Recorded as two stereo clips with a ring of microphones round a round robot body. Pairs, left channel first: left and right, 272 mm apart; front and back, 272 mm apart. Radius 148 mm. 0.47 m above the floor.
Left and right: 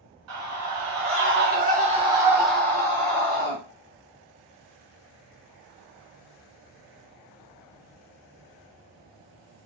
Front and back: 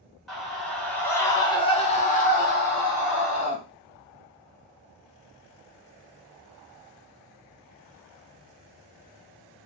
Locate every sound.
0.3 s a scream: 90° right, 1.5 m; by 3.6 s 40° left, 1.3 m